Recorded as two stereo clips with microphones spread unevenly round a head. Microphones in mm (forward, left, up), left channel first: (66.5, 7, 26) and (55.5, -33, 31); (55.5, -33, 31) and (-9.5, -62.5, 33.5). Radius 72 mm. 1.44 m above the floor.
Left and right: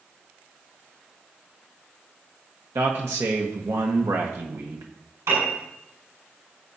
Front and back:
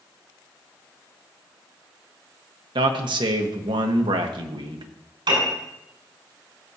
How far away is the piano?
About 7 m.